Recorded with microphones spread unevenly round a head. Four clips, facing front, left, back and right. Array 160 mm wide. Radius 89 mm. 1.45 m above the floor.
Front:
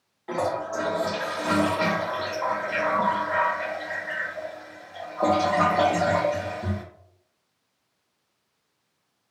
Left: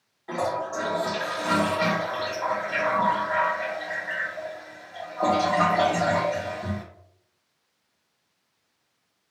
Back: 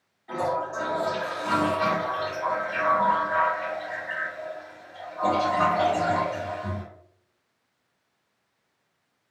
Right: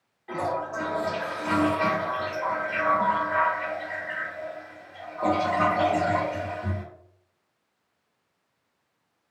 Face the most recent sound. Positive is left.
turn(degrees=10)